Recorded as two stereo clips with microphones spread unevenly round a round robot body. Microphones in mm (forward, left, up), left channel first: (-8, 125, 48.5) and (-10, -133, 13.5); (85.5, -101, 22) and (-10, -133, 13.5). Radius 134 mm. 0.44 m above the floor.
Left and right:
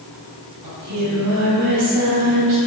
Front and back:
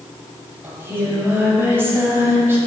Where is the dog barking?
I don't hear a dog barking.